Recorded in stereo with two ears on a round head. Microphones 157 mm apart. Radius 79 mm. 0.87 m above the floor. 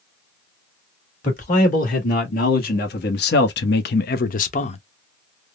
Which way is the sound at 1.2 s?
45° left (ahead or behind).